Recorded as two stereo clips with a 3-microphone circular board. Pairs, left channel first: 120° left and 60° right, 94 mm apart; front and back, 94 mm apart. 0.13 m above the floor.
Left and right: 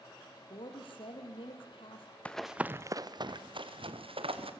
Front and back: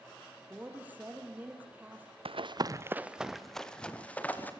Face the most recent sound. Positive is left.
turn(degrees=-70)